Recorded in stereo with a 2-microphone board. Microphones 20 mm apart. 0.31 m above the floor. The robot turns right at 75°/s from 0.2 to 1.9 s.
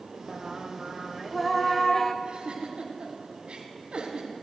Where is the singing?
25° right (ahead or behind), 0.6 m; by 2.1 s 20° left (ahead or behind), 0.6 m.